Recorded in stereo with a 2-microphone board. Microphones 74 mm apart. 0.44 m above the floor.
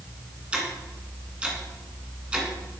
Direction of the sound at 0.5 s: 15° right (ahead or behind).